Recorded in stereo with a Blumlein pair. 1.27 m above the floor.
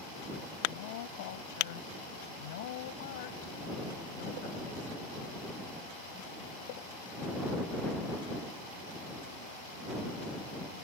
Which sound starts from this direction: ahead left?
A woman speaking, at 0.7 s.